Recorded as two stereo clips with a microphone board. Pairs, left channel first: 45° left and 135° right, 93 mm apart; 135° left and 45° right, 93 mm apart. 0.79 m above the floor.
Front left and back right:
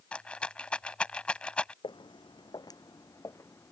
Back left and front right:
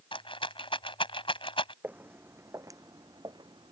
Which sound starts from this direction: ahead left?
Footsteps, at 1.8 s.